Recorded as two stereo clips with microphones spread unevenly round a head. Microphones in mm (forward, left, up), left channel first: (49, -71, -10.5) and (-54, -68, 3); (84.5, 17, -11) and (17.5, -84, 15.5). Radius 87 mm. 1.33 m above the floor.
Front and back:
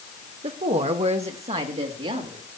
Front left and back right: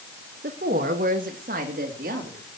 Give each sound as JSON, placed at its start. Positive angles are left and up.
{"t": 0.4, "sound": "a woman speaking", "azimuth_deg": -155, "distance_m": 1.3}